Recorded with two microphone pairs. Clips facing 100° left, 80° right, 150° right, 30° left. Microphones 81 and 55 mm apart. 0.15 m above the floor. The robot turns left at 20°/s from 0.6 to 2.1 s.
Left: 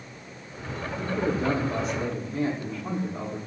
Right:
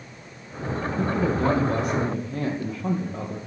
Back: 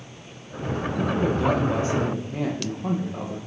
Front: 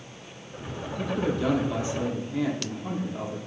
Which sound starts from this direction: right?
A man speaking, at 1.0 s.